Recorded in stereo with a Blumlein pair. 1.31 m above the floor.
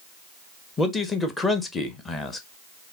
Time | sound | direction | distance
0.8 | a man speaking | 15° left | 1.0 m